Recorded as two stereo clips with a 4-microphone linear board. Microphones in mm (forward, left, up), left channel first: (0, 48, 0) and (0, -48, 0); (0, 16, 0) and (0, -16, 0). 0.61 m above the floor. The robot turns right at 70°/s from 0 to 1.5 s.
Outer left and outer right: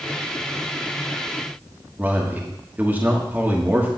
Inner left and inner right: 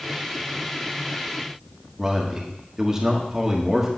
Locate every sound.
2.0 s a man speaking: 20° right (ahead or behind), 1.3 m